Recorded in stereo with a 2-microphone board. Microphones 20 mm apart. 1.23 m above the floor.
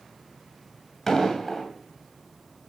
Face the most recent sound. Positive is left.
turn(degrees=15)  # may be behind; listen again after turning